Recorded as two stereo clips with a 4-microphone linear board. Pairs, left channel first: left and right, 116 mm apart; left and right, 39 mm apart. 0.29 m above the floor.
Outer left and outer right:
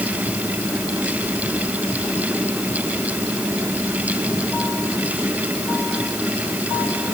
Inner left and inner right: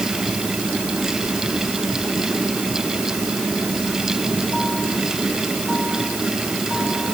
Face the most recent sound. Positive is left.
No sound to turn to.